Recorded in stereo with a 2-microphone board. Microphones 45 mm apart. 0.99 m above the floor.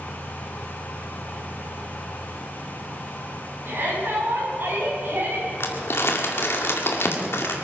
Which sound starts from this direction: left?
Crumpling, at 5.6 s.